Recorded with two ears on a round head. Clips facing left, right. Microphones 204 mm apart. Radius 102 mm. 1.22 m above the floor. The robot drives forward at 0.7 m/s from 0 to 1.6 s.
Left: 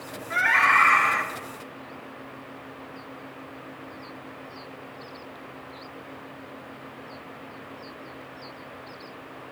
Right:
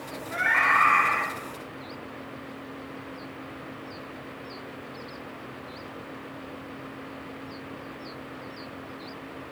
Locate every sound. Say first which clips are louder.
0.3 s a scream: left 2 dB; 70° left (ahead or behind), 4 m; by 1.2 s 80° left, 4 m